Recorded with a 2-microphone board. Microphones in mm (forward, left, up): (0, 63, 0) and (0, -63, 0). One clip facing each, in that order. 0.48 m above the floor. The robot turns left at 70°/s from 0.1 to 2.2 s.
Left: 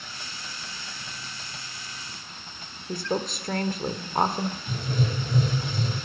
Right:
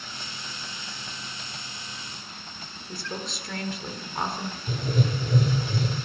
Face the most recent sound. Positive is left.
turn(degrees=-55)  # may be behind; listen again after turning